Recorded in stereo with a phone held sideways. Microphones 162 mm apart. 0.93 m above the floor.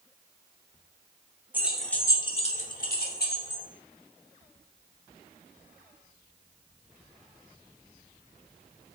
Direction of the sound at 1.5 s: 10° right (ahead or behind).